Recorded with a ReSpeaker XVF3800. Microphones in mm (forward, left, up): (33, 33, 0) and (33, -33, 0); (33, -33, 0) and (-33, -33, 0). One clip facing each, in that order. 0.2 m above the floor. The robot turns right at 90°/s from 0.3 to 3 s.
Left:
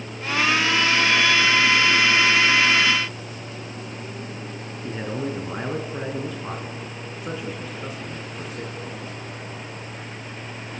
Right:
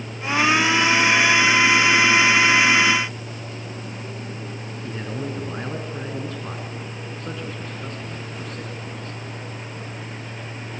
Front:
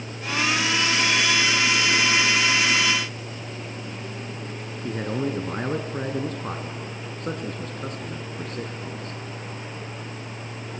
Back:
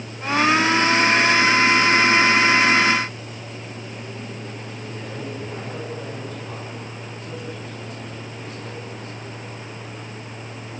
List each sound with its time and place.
4.8 s a man speaking: 10° left, 3 m